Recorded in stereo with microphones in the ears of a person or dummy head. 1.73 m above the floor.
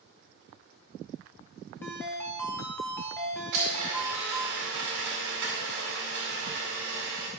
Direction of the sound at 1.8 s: 20° left (ahead or behind).